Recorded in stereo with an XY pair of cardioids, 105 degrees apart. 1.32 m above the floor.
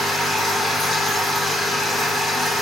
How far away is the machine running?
About 3 m.